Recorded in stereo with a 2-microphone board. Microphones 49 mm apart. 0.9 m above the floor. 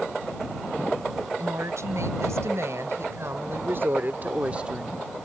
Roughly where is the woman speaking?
Right.